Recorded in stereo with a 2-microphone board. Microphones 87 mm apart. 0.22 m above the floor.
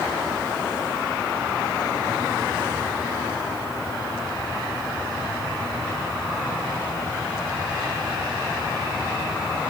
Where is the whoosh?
No whoosh in this recording.